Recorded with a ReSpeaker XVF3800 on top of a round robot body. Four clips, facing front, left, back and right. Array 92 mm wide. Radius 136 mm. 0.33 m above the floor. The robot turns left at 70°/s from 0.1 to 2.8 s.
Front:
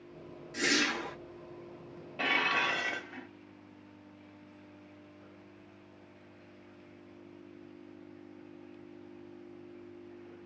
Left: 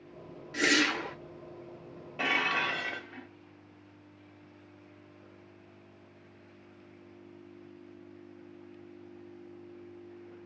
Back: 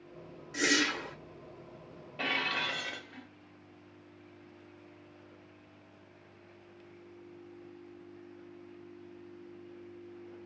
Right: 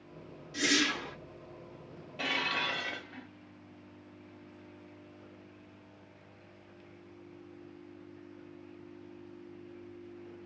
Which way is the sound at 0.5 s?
105° left.